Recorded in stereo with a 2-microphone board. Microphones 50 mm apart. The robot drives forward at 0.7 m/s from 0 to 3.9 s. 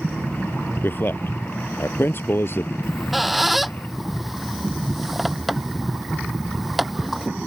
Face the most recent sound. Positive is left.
turn(degrees=0)  # may be behind; listen again after turning